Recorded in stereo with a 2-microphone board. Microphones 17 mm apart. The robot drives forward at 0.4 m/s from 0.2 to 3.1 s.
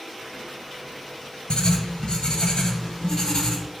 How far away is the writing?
About 1.0 m.